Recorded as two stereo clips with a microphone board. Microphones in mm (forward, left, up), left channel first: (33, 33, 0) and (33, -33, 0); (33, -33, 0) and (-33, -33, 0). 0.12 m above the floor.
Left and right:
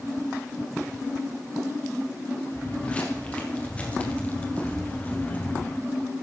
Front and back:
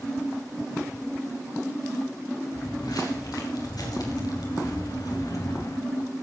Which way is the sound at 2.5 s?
20° left.